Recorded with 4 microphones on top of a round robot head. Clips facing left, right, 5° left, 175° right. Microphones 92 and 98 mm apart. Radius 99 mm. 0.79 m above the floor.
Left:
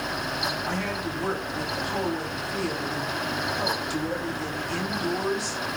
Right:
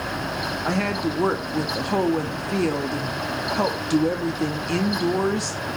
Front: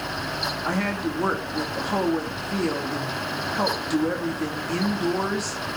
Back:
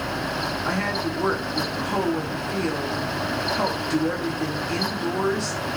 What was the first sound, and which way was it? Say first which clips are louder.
A woman speaking: right 6 dB, front 2 dB; 80° right.